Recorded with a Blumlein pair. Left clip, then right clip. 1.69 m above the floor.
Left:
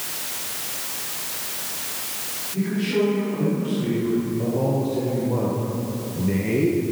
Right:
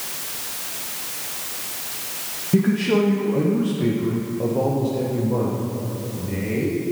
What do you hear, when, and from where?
2.5 s a man speaking: 45° right, 2 m; by 6.8 s 25° left, 2 m